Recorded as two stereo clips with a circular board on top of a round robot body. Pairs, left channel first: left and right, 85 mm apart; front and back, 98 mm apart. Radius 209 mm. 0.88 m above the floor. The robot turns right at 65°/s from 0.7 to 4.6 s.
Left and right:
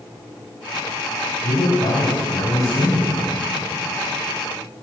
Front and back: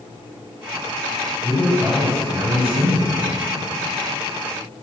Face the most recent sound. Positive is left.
turn(degrees=-85)